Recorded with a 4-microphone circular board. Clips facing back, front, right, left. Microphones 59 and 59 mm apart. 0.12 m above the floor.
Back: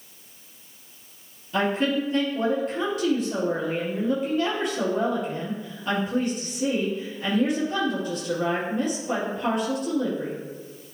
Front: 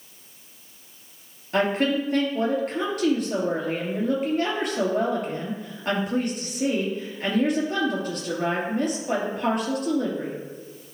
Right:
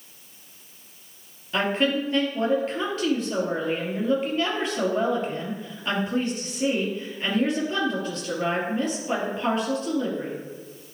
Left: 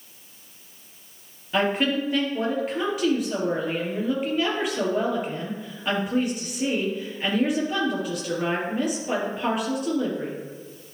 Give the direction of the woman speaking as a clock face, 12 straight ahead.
12 o'clock.